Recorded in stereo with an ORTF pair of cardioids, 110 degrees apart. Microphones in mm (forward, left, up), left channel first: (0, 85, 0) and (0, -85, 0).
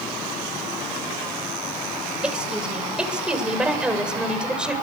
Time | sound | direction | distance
2.2 | a woman speaking | 5° right | 7.5 m